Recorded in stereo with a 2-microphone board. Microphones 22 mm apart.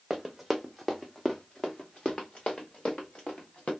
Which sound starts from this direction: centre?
Running footsteps, at 0.1 s.